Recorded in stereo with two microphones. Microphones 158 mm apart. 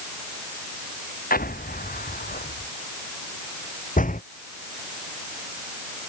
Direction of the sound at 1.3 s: 70° left (ahead or behind).